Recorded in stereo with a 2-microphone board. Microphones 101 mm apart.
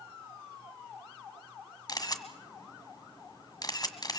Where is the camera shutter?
40° left (ahead or behind), 1.8 m.